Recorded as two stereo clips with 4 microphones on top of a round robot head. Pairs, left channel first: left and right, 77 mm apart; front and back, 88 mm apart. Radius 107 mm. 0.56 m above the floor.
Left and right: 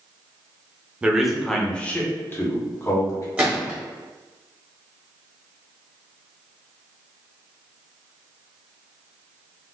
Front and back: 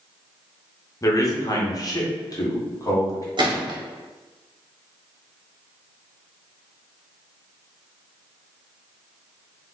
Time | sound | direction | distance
1.0 | a man speaking | 20° right | 0.9 m
3.4 | a gunshot | 160° right | 1.2 m